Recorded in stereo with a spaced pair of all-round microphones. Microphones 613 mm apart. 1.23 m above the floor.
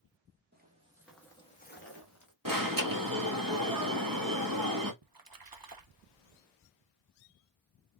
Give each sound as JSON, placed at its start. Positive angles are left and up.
{"t": 0.5, "sound": "footsteps", "side_deg": -15, "distance_m": 1.2}
{"t": 2.5, "sound": "an alarm", "side_deg": -35, "distance_m": 1.1}
{"t": 5.0, "sound": "a splash", "side_deg": -35, "distance_m": 0.6}